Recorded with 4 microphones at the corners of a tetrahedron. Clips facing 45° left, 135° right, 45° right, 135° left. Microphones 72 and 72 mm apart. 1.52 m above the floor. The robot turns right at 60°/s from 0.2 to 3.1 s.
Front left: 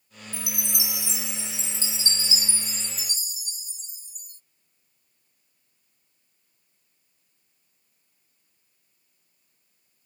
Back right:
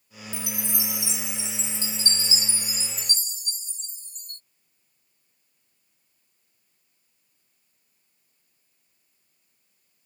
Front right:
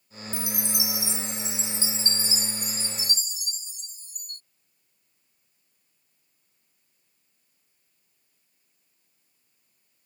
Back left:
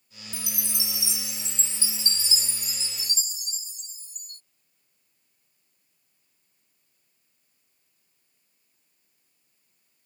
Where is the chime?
160° left; by 4.4 s 35° right.